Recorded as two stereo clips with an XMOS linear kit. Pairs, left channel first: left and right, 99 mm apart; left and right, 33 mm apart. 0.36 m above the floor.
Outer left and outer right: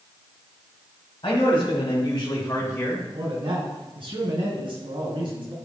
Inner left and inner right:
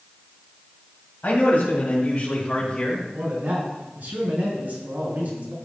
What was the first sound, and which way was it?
A man speaking, 55° left (ahead or behind).